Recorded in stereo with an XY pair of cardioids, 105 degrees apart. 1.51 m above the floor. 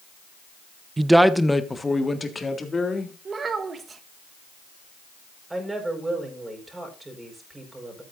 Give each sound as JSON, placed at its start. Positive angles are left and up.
{"t": 1.0, "sound": "a man speaking", "azimuth_deg": -25, "distance_m": 0.7}
{"t": 3.2, "sound": "a child speaking", "azimuth_deg": -40, "distance_m": 1.3}
{"t": 5.5, "sound": "a woman speaking", "azimuth_deg": -20, "distance_m": 4.5}